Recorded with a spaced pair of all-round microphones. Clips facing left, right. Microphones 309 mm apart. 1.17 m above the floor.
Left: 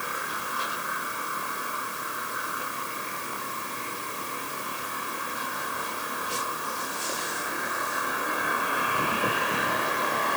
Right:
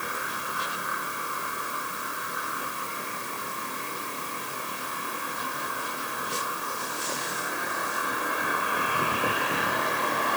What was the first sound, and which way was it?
Only background noise.